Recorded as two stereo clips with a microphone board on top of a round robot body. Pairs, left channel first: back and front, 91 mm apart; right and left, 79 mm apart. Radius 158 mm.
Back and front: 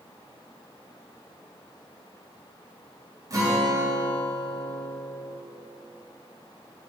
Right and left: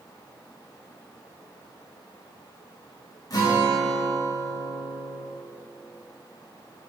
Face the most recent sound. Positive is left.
turn(degrees=-50)